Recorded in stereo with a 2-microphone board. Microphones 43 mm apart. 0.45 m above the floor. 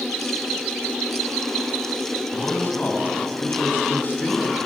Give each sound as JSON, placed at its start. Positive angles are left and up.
{"t": 2.3, "sound": "a man speaking", "side_deg": 45, "distance_m": 4.0}